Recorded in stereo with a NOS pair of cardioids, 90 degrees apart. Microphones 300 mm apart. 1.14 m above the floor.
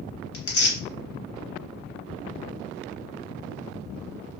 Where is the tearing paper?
50° left, 1.4 m.